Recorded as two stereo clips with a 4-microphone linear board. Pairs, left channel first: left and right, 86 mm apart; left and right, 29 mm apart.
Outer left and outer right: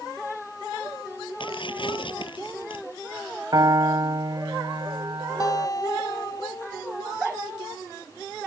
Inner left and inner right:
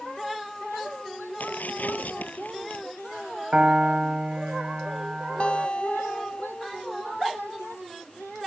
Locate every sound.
1.4 s tearing paper: 75° left (ahead or behind)
3.5 s a piano: 50° right (ahead or behind)
5.4 s a guitar: 45° left (ahead or behind)